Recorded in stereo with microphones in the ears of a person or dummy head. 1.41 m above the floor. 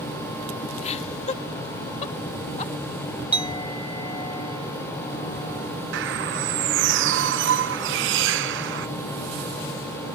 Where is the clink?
25° left (ahead or behind).